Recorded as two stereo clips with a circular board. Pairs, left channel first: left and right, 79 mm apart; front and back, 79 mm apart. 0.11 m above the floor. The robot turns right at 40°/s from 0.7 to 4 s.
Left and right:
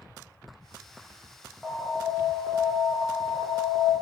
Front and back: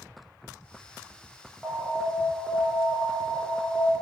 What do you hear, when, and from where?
1.6 s an alarm: 145° right, 1.0 m; by 3.9 s 55° right, 1.0 m